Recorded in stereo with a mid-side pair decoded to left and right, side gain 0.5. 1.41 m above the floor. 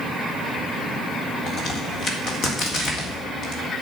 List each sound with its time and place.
1.5 s a crack: 60° left, 3.5 m